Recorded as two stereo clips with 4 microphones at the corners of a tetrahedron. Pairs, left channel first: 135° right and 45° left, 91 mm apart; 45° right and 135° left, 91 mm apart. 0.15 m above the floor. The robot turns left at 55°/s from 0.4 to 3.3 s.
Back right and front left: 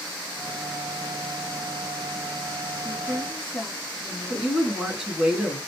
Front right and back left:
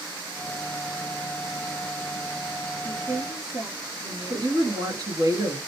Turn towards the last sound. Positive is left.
turn(degrees=125)